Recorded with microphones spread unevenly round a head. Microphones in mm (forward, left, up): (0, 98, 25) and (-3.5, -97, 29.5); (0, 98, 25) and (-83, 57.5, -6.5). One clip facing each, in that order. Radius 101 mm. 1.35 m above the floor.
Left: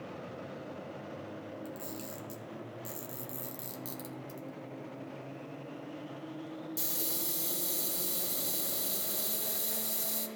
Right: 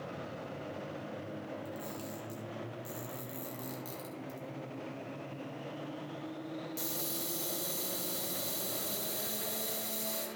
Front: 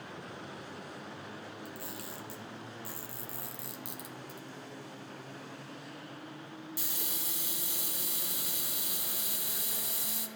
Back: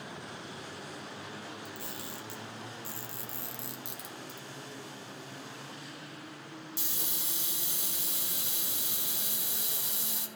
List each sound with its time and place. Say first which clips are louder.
1.6 s a camera shutter: even, back 1 dB; 150° left, 1.5 m